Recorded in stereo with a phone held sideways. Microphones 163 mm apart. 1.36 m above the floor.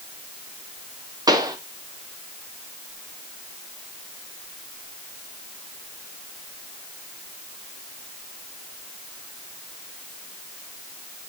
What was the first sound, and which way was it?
A pop, 25° right (ahead or behind).